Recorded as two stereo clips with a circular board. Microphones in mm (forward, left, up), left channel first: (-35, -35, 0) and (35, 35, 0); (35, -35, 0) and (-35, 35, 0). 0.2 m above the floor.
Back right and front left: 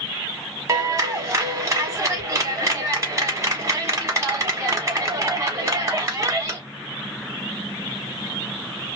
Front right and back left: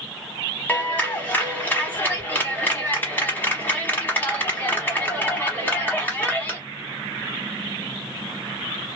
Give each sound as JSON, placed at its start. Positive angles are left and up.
{"t": 0.7, "sound": "a clap", "azimuth_deg": 15, "distance_m": 0.9}